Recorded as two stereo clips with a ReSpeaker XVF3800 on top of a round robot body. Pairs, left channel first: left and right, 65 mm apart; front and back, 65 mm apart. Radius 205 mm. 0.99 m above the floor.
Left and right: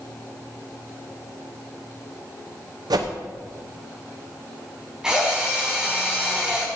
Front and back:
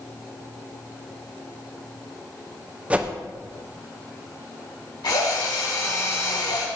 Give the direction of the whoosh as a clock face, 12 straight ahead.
4 o'clock.